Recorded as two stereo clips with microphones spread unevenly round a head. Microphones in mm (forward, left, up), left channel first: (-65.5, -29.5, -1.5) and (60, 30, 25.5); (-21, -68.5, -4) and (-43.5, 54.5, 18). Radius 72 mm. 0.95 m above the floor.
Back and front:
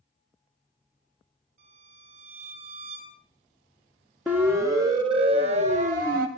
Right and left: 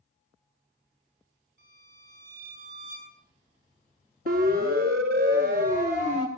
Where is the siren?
110° left, 2.5 m; by 6.3 s 55° left, 2.5 m.